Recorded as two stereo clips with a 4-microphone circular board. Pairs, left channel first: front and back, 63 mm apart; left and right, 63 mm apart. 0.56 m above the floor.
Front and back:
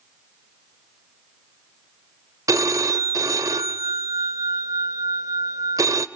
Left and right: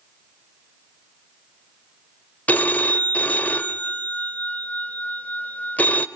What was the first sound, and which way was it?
A phone ringing, 155° left.